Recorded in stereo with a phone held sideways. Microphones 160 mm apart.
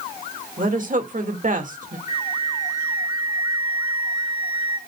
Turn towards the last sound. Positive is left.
turn(degrees=55)  # may be behind; listen again after turning